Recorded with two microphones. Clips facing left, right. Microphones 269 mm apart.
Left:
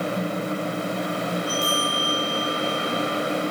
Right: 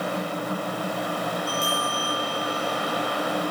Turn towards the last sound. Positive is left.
turn(degrees=5)  # may be behind; listen again after turning